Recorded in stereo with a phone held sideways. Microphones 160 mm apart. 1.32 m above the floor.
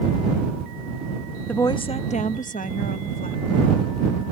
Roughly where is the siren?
I don't hear a siren.